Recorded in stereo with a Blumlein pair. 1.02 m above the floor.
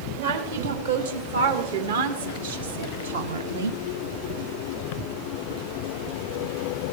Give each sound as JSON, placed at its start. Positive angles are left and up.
{"t": 0.2, "sound": "a woman speaking", "azimuth_deg": -65, "distance_m": 3.0}